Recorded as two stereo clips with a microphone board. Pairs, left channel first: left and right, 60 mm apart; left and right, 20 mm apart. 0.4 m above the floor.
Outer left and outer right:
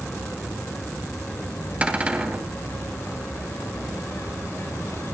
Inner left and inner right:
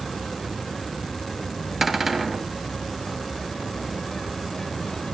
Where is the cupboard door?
20° right (ahead or behind), 1.9 m.